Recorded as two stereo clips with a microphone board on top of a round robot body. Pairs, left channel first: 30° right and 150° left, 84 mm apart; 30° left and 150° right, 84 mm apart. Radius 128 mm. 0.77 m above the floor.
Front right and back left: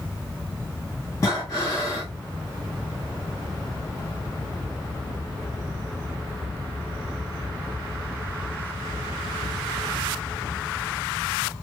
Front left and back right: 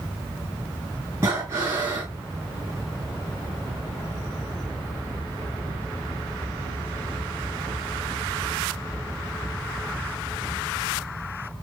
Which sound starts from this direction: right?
Breathing, at 1.2 s.